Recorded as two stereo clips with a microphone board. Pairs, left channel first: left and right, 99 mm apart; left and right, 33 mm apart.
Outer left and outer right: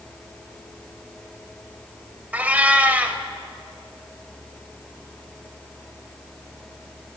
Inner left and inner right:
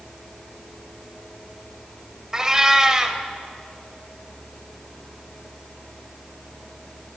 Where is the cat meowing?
15° right (ahead or behind), 0.7 m.